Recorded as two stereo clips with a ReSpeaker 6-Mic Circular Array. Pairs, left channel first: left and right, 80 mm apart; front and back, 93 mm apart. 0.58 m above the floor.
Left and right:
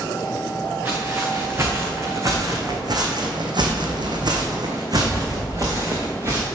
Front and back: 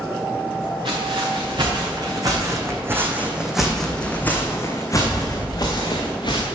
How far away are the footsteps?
About 2.5 m.